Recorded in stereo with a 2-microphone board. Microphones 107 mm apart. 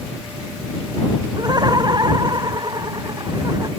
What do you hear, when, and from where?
1.4 s laughter: 40° right (ahead or behind)